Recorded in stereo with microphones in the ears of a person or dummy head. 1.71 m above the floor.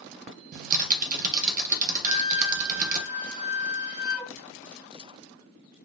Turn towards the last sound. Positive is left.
turn(degrees=-10)  # may be behind; listen again after turning